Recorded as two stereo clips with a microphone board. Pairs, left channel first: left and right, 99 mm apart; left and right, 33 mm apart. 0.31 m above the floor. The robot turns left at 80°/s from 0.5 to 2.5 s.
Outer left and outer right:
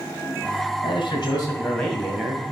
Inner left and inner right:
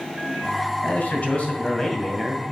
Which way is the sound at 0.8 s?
90° left.